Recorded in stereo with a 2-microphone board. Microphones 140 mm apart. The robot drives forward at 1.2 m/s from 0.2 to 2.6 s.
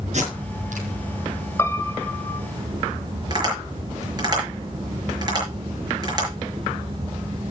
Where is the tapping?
30° right (ahead or behind), 6 m.